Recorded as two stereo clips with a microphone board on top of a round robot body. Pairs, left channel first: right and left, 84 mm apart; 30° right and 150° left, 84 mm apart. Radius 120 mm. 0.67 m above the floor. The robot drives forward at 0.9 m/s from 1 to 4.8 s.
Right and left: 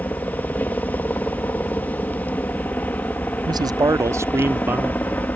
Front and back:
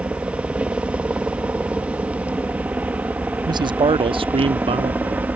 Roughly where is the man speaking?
Behind left.